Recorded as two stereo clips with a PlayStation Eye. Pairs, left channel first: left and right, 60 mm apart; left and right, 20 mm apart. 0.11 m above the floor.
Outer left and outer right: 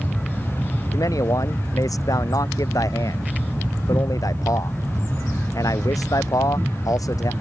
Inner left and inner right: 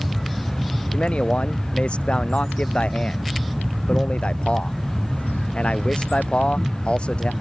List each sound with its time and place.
0.9 s a man speaking: 75° left (ahead or behind)